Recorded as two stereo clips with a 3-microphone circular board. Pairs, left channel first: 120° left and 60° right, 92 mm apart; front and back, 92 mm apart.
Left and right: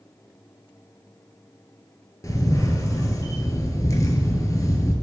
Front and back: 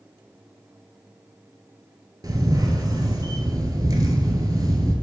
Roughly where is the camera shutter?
Behind left.